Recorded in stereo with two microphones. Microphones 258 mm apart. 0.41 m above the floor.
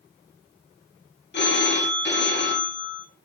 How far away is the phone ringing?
About 0.6 m.